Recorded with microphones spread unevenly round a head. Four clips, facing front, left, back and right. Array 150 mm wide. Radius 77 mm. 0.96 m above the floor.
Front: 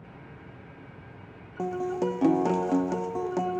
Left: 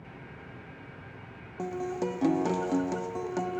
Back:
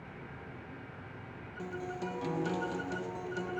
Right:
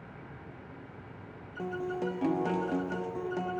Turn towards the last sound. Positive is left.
turn(degrees=15)